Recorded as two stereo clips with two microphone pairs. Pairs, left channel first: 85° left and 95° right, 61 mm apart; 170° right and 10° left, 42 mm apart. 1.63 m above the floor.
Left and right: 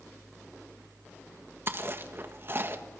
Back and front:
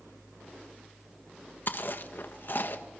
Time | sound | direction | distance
1.7 | chewing | 140° right | 1.6 m